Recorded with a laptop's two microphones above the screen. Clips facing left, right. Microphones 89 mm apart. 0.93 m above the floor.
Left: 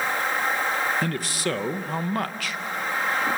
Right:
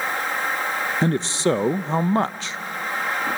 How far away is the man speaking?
About 0.5 m.